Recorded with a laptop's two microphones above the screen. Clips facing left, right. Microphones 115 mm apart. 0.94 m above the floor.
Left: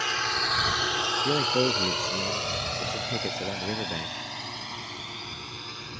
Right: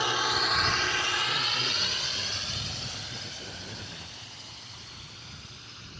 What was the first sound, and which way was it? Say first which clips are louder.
A drone: right 1 dB; 15° right (ahead or behind).